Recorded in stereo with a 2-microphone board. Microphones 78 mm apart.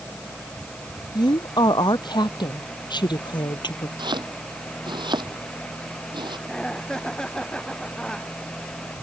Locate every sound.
1.1 s a woman speaking: 65° left (ahead or behind); by 3.9 s 75° left (ahead or behind)
4.0 s chopping: 80° right
6.5 s laughter: 10° left (ahead or behind)